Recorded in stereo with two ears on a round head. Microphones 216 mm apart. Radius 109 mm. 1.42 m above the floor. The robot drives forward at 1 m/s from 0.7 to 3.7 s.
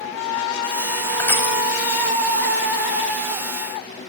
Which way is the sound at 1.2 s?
10° left (ahead or behind).